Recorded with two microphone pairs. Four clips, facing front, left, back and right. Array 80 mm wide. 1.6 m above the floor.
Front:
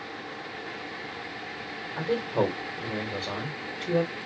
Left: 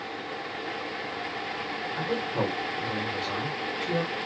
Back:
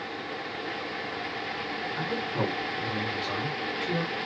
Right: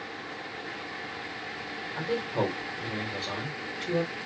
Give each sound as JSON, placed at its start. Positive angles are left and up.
{"t": 2.0, "sound": "a man speaking", "azimuth_deg": -5, "distance_m": 1.3}